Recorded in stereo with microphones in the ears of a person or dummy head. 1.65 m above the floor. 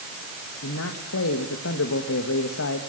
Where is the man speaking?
80° left, 1.9 m.